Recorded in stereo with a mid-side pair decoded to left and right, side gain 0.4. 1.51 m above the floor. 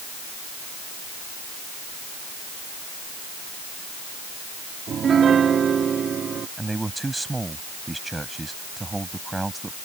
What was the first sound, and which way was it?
A piano, 55° right.